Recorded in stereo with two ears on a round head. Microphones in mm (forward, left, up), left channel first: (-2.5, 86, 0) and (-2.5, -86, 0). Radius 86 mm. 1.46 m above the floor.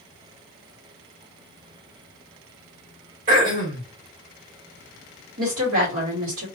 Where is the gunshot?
I don't hear a gunshot.